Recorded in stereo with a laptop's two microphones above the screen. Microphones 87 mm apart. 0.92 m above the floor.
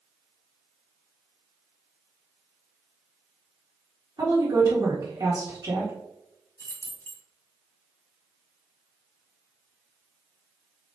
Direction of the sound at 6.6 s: 35° left (ahead or behind).